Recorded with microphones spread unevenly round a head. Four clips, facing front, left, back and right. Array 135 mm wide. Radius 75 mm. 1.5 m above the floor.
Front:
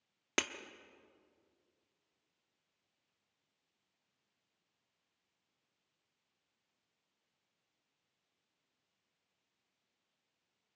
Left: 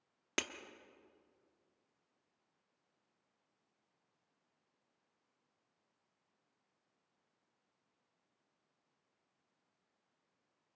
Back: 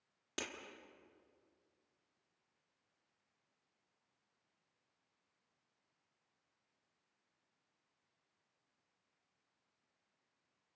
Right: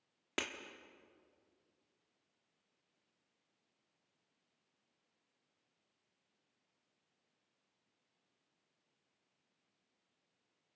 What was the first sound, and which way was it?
Breaking glass, straight ahead.